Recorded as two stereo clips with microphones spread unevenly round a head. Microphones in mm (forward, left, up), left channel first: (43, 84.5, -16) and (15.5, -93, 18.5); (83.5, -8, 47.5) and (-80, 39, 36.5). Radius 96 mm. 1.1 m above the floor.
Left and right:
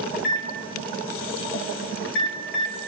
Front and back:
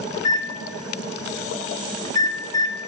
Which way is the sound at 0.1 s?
55° left.